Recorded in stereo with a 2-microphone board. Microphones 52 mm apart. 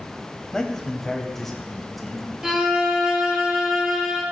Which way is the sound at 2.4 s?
10° right (ahead or behind).